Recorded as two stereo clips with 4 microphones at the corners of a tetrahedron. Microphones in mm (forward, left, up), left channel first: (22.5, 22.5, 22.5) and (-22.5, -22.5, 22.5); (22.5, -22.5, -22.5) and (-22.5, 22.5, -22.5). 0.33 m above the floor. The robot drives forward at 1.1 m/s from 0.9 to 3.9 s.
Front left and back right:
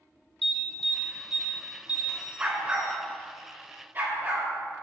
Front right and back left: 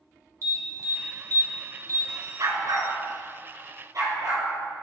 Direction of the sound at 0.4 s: 125° left.